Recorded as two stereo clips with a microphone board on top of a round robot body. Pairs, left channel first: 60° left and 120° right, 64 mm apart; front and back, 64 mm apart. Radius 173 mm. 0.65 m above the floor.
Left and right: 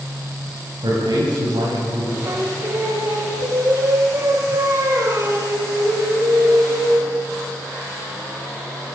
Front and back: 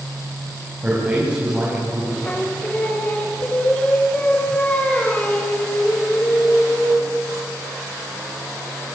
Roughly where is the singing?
Right.